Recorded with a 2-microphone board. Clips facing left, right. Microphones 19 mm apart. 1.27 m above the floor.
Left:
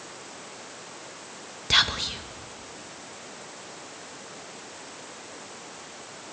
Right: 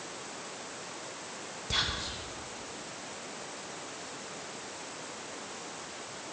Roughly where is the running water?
I don't hear running water.